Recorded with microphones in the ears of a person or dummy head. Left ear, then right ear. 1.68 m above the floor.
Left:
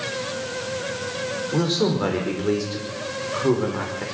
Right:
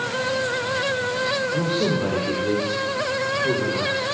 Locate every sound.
1.5 s a man speaking: 65° left (ahead or behind), 5 m